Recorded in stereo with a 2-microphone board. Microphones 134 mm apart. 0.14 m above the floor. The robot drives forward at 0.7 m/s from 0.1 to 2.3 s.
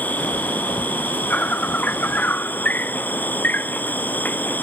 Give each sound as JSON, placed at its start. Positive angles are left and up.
{"t": 0.0, "sound": "an insect", "side_deg": 10}